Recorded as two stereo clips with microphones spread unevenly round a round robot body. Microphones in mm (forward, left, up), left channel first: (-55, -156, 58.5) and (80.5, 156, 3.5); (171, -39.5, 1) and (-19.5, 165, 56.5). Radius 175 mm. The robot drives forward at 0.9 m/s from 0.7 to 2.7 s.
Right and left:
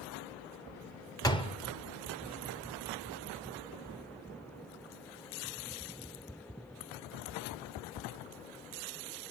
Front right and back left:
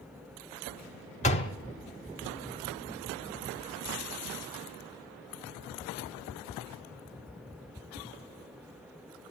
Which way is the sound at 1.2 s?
25° right.